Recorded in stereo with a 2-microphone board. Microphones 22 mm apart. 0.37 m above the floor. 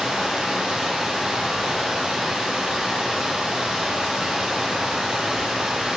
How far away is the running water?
About 1.3 m.